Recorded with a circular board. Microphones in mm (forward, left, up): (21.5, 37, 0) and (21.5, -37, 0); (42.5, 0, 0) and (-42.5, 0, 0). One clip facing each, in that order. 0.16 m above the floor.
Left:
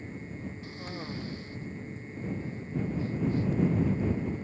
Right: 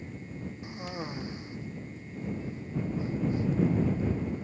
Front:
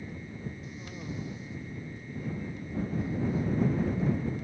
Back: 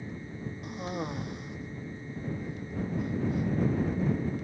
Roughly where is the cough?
Behind.